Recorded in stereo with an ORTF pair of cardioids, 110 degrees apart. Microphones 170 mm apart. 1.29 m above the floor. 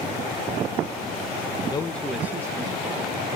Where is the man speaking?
35° left, 0.9 m; by 3.4 s 30° right, 3 m.